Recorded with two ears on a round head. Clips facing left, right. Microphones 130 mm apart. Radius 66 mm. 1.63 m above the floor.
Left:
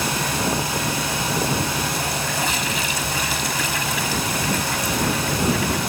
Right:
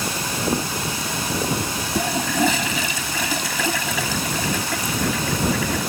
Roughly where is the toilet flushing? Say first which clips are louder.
Right 4 dB; right.